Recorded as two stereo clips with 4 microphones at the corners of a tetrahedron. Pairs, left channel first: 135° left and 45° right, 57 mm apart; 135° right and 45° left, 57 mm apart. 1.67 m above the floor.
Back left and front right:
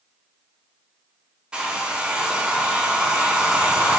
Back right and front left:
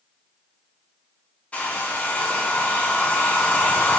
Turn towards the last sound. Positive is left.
turn(degrees=-100)